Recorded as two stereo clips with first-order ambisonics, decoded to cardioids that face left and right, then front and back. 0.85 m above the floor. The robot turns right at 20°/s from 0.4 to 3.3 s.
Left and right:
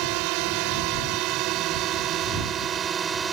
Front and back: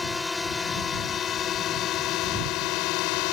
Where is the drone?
75° right; by 3.3 s 20° right.